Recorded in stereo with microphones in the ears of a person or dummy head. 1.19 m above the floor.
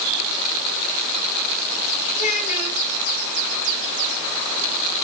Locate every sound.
2.1 s a child speaking: 40° left (ahead or behind), 1.7 m